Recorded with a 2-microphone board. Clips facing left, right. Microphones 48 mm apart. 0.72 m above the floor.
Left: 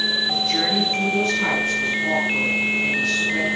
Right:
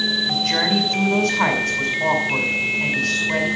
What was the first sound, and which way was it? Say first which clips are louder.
A woman speaking: right 2 dB; 80° right.